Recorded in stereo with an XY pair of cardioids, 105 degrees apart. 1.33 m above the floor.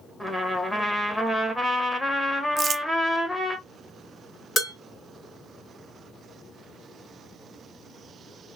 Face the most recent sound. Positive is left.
turn(degrees=50)